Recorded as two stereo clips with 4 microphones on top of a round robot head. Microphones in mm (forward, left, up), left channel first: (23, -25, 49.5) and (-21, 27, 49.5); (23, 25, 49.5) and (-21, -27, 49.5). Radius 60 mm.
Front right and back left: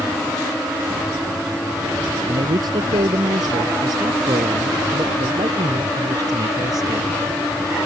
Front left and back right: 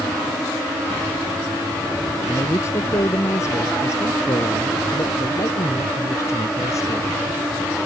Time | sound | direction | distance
2.3 | a man speaking | 100° left | ?